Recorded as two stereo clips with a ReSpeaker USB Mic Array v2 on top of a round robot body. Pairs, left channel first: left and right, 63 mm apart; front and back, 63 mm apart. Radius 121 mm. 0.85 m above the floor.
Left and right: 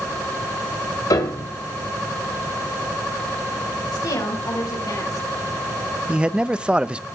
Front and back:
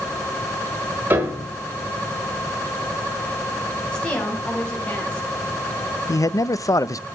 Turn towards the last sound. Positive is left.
turn(degrees=-20)